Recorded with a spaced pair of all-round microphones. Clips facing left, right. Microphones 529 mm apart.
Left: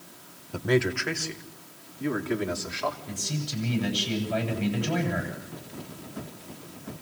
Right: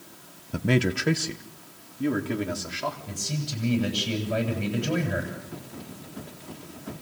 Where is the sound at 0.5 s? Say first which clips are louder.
Even; 40° right (ahead or behind), 0.8 m; by 3.0 s 50° right (ahead or behind), 3.5 m.